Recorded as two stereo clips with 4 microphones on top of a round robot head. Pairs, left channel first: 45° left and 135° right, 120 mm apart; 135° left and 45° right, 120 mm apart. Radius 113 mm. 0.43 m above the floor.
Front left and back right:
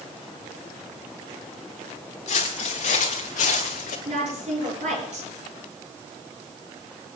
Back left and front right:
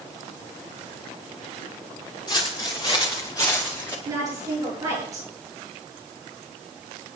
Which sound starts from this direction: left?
Footsteps, at 2.3 s.